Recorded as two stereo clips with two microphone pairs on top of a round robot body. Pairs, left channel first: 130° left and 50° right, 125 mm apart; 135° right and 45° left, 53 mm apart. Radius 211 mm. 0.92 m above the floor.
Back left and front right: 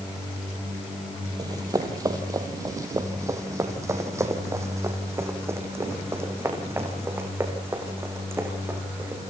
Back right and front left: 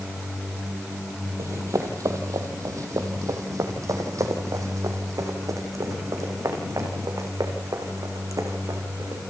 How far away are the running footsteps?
About 2 m.